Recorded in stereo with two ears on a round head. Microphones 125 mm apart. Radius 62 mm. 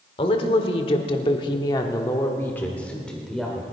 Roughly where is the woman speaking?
Left.